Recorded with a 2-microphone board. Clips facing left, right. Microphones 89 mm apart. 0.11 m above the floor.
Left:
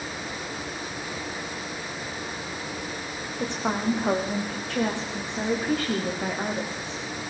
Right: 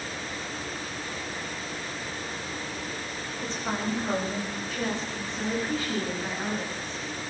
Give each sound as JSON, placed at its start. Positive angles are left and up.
{"t": 3.4, "sound": "a woman speaking", "side_deg": 60, "distance_m": 7.5}